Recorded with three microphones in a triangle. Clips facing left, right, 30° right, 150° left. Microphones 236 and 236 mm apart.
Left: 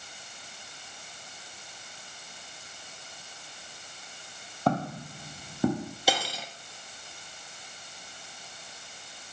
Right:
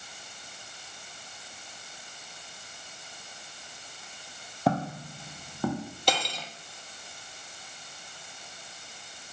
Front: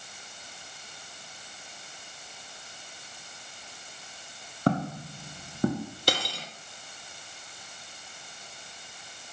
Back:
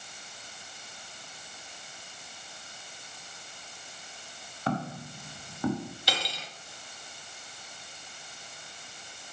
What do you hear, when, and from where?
4.7 s footsteps: 5° right, 2.0 m; by 5.9 s 25° left, 3 m
6.1 s cutlery clinking: 5° left, 1.3 m